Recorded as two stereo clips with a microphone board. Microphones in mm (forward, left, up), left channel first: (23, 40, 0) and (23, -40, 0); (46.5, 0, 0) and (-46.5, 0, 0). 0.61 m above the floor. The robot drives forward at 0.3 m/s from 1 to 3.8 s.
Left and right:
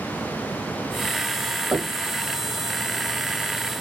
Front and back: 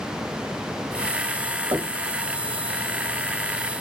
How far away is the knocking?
About 1.1 m.